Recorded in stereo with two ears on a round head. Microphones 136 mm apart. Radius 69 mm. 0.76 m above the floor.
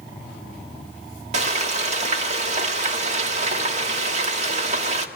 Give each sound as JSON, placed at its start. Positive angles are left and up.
{"t": 1.3, "sound": "frying", "side_deg": -50, "distance_m": 1.7}